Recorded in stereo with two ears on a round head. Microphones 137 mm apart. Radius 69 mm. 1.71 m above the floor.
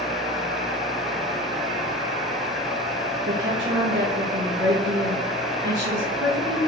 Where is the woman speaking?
75° right (ahead or behind), 3 m.